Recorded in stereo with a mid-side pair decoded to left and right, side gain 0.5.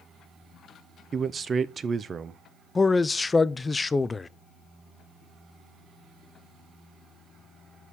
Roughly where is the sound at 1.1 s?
Ahead right.